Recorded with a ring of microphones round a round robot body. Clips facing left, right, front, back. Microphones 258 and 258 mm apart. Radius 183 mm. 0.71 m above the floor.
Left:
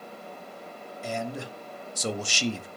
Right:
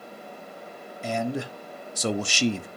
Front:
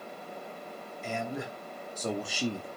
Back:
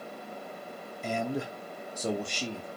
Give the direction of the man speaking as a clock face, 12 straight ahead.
4 o'clock.